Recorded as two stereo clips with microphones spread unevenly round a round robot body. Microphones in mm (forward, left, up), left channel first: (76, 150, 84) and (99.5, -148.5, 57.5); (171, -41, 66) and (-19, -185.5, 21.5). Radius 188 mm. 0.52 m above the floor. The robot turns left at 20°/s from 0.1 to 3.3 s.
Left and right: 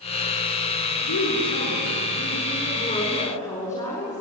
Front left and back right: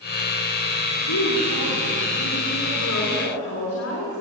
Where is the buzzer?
I don't hear a buzzer.